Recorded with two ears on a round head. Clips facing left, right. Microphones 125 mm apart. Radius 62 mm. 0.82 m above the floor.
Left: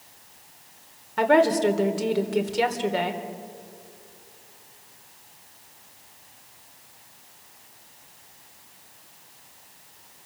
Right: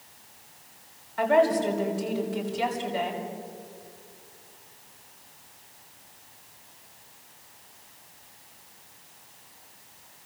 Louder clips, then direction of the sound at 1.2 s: Left 2 dB; 75° left (ahead or behind).